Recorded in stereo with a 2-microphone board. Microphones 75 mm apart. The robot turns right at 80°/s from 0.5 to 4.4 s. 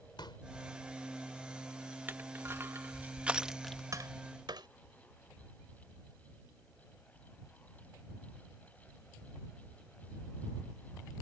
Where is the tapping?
45° right (ahead or behind); by 4.7 s 75° right (ahead or behind).